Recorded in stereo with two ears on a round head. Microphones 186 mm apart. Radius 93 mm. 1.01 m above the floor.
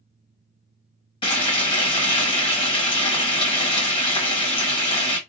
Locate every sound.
1.2 s frying: 25° left (ahead or behind), 1.4 m